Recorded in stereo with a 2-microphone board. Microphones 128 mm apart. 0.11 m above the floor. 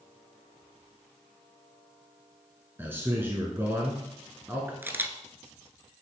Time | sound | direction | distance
2.8 | a man speaking | 20° right (ahead or behind) | 1.1 m
4.8 | a camera shutter | 15° right (ahead or behind) | 0.6 m